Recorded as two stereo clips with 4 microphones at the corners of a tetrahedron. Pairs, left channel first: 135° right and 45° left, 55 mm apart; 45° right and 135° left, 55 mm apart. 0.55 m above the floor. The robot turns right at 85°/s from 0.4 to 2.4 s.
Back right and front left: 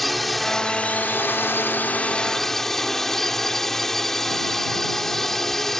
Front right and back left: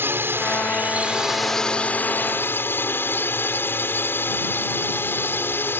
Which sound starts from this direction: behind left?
A drone, at 0.0 s.